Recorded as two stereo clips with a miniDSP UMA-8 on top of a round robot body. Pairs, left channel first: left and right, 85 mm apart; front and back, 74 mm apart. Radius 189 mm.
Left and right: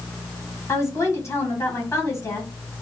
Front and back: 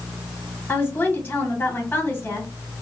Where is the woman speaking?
55° left, 1.6 m.